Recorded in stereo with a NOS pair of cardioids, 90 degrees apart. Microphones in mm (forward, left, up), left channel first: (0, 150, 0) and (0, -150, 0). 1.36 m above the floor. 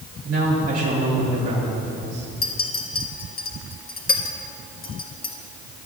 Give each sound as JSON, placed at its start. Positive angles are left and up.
{"t": 0.2, "sound": "a man speaking", "azimuth_deg": -50, "distance_m": 3.5}
{"t": 2.4, "sound": "a clink", "azimuth_deg": 30, "distance_m": 1.3}